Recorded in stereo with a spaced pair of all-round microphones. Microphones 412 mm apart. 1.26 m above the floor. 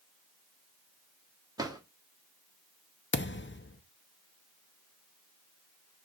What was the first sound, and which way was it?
A drawer, 10° right (ahead or behind).